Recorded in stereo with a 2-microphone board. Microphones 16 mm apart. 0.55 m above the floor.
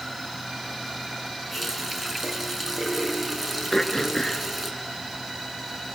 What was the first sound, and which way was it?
A running tap, 5° left (ahead or behind).